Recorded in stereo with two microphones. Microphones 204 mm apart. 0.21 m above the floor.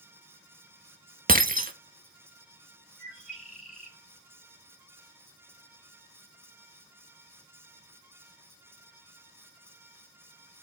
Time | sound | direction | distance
1.3 | breaking glass | 45° right (ahead or behind) | 0.6 m
3.0 | a bird | 40° left (ahead or behind) | 2 m